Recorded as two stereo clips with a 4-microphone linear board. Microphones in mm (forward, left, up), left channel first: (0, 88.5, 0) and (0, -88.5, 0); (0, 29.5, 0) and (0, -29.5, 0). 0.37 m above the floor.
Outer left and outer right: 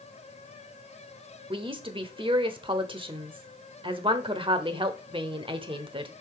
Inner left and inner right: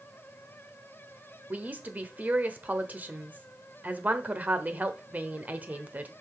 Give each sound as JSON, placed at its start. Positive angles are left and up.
{"t": 1.5, "sound": "a woman speaking", "side_deg": -30, "distance_m": 0.9}